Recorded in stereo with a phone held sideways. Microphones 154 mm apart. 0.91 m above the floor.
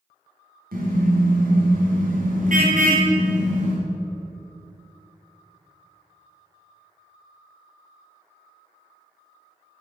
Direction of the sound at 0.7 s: 75° right (ahead or behind).